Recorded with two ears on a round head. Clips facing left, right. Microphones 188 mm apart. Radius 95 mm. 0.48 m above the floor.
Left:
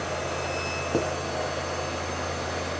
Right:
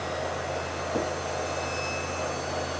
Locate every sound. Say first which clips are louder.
0.9 s writing: left 3 dB; 50° left (ahead or behind), 2 m